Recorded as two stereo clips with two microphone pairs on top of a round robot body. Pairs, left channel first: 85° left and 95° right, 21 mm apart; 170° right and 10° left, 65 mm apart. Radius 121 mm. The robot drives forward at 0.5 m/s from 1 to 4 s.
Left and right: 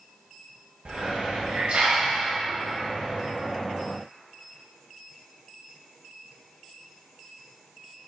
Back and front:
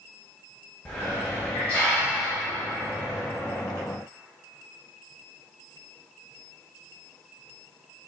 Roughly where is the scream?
No scream in this recording.